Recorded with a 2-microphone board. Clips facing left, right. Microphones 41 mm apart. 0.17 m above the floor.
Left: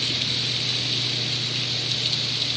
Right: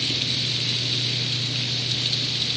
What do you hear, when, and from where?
Only background noise.